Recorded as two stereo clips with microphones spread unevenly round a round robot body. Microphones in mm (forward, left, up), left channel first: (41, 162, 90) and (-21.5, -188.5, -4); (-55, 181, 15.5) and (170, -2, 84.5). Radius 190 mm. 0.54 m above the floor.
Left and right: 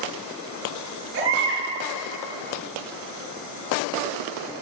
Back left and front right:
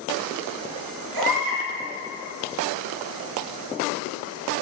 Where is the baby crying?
40° right, 7 m.